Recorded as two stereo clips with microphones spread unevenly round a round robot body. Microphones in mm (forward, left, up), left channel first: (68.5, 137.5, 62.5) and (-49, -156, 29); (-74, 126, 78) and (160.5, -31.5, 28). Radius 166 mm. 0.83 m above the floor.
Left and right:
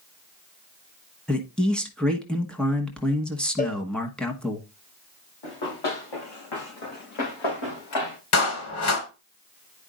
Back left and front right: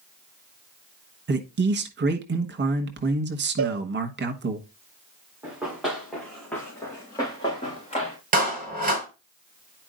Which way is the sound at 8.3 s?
25° left.